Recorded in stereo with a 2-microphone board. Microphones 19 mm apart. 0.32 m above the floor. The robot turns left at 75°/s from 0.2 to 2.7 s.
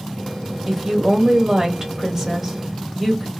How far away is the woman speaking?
About 1.0 m.